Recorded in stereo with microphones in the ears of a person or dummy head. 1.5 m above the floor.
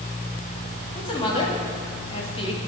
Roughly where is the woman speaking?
Left.